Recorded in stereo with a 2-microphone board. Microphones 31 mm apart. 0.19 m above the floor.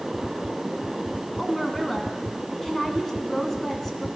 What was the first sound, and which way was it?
A woman speaking, 10° left (ahead or behind).